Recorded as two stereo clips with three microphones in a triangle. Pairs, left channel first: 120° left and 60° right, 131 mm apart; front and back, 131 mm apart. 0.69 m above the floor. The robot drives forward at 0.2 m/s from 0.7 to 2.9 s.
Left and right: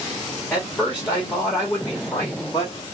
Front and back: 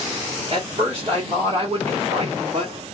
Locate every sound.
0.5 s a man speaking: 165° right, 1.2 m; by 2.9 s 170° right, 1.6 m